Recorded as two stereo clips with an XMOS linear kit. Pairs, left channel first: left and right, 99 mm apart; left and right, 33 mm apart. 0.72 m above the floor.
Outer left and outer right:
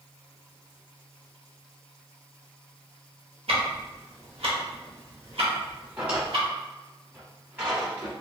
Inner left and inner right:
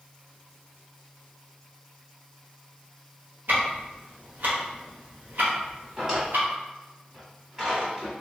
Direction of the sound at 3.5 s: 80° right.